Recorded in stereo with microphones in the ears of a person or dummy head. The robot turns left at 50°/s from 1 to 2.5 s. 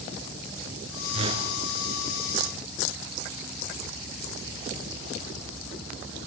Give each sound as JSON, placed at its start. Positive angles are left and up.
{"t": 1.1, "sound": "a whoosh", "side_deg": -35, "distance_m": 3.5}